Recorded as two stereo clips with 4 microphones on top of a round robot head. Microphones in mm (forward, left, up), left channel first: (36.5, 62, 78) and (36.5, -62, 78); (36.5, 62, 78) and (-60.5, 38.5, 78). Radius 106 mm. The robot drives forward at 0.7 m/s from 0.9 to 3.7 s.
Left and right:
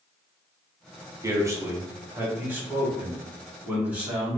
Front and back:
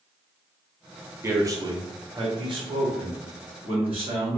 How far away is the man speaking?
About 1.0 m.